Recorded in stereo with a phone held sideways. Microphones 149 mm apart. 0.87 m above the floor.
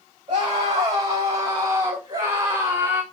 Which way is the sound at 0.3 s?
40° right (ahead or behind).